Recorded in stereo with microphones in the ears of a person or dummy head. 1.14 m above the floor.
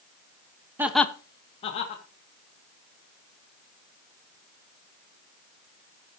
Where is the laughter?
15° right (ahead or behind), 0.6 m; by 2.0 s 35° left (ahead or behind), 1.9 m.